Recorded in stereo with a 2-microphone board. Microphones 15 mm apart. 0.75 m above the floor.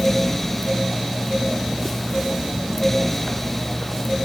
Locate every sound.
Only background noise.